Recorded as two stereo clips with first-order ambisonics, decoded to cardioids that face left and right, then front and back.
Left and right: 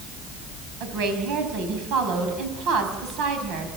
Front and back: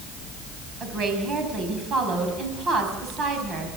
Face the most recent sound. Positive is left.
turn(degrees=-120)